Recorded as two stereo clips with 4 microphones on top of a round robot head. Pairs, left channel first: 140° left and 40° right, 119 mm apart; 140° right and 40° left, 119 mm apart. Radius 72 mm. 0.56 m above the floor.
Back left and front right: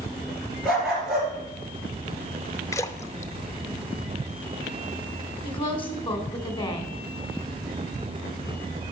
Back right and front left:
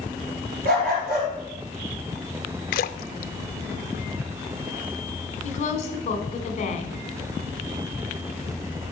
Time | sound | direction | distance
0.7 | a dog barking | 50° left | 3.5 m
2.7 | a splash | 150° right | 0.5 m
5.4 | a woman speaking | 170° right | 2 m